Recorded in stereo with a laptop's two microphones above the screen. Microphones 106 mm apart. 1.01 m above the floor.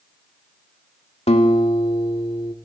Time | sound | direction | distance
1.3 | a guitar | 80° left | 2 m